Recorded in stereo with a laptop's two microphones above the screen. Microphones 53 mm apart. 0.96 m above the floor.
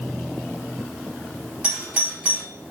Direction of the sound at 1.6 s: 25° right (ahead or behind).